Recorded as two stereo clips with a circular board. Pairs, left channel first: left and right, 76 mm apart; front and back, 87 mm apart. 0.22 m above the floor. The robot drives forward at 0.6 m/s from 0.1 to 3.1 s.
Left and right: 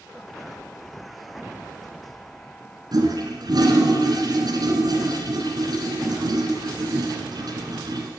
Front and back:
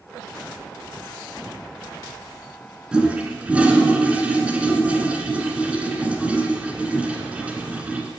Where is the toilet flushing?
100° right, 1.4 m; by 8.1 s 105° right, 1.4 m.